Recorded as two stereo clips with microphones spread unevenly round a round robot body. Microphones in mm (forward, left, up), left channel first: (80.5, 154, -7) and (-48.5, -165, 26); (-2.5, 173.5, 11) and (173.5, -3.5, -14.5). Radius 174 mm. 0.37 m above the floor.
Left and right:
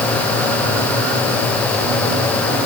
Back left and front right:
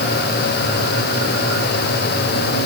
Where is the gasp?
I don't hear a gasp.